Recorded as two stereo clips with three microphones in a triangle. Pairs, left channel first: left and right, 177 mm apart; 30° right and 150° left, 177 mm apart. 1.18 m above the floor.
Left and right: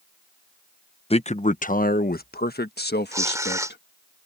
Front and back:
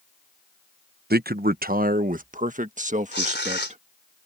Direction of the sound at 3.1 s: 15° right.